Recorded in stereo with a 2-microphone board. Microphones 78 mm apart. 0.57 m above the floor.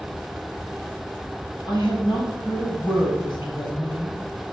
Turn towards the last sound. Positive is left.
turn(degrees=75)  # may be behind; listen again after turning